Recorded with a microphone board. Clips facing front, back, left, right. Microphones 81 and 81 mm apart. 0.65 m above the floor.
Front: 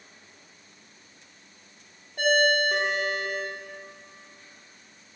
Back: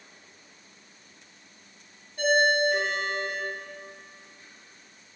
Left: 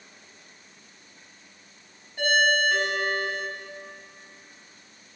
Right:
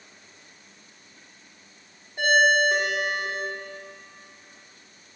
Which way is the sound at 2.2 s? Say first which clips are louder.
Even, right 3 dB; 20° right.